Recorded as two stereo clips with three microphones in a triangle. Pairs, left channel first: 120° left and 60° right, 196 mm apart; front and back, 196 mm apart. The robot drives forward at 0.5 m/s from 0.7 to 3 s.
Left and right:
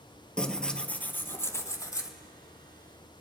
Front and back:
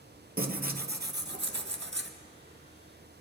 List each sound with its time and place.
0.4 s tearing paper: 155° right, 0.8 m; by 2.1 s 165° right, 1.5 m